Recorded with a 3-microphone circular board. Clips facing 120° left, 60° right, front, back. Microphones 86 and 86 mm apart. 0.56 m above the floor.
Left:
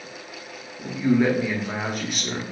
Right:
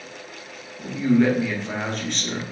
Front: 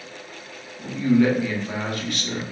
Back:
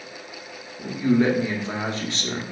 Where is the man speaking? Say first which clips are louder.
Right 1 dB, front 1 dB; 175° right, 0.6 m.